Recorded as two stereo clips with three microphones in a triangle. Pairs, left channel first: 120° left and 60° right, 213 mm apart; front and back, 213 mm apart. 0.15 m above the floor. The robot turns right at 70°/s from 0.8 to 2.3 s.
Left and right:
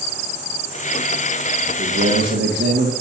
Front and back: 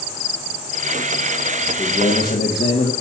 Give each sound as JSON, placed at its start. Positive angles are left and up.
{"t": 1.6, "sound": "a man speaking", "azimuth_deg": -80, "distance_m": 4.5}